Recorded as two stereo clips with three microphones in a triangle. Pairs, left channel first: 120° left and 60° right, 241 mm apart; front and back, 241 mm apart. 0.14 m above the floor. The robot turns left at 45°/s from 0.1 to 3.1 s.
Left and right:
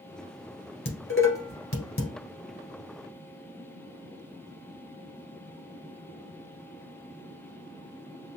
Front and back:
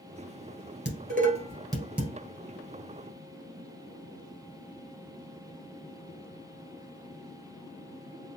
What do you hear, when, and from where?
0.8 s dishes clattering: 145° left, 1.5 m; by 2.1 s 90° left, 1.5 m